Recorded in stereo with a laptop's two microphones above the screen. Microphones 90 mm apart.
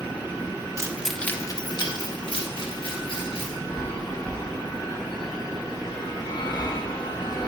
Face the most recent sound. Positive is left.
turn(degrees=55)  # may be behind; listen again after turning